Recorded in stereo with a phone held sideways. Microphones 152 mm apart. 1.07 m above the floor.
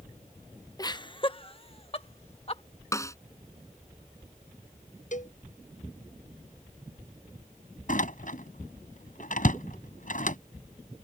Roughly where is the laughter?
Left.